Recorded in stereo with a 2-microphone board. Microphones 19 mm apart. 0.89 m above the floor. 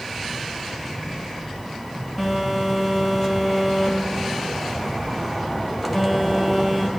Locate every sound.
2.2 s a phone buzzing: 10° right (ahead or behind), 1.9 m